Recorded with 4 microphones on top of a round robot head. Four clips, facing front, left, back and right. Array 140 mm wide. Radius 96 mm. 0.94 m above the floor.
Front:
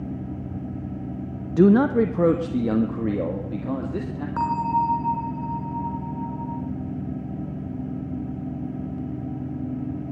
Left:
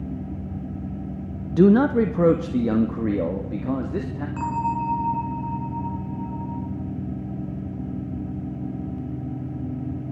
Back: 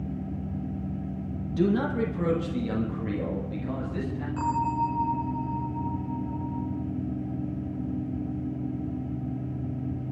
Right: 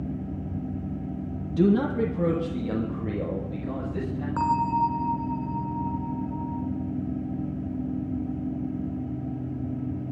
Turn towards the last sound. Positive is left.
turn(degrees=-35)